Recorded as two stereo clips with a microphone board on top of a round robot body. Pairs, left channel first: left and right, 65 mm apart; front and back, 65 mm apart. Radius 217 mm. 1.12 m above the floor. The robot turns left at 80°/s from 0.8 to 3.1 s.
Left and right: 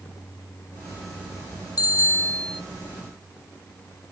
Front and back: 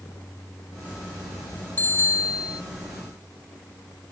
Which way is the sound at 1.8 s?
70° left.